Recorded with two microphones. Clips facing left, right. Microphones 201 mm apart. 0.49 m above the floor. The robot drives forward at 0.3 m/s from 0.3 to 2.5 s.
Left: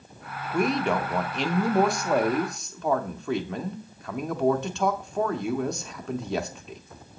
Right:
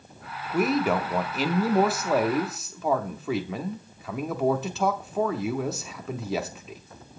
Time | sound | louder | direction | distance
0.5 | a man speaking | right 1 dB | 5° right (ahead or behind) | 0.7 m